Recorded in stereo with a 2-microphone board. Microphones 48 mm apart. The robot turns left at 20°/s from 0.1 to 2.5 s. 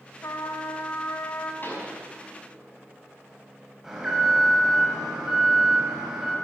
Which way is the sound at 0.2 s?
70° left (ahead or behind).